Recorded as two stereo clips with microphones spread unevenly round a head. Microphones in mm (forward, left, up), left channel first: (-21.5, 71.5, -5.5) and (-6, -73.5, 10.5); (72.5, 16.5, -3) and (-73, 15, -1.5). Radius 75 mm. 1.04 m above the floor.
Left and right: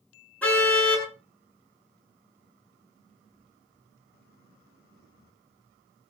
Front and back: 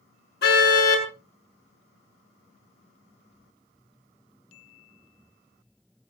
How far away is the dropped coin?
No dropped coin in this recording.